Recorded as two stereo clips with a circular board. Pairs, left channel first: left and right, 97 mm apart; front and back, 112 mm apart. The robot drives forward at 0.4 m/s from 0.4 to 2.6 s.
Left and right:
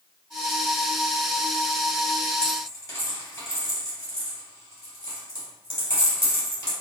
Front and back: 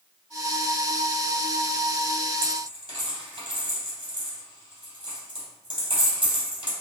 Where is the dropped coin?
145° left, 1.7 m.